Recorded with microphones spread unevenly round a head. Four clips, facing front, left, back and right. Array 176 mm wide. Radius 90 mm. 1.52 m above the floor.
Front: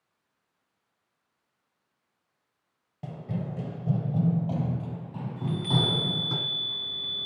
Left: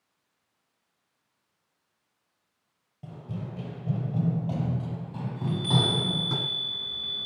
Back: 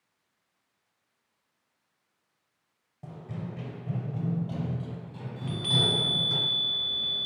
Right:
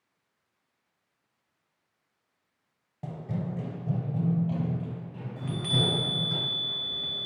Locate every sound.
3.0 s running footsteps: 40° right, 2 m; by 6.4 s 55° left, 4.5 m
5.4 s a chime: 125° right, 3 m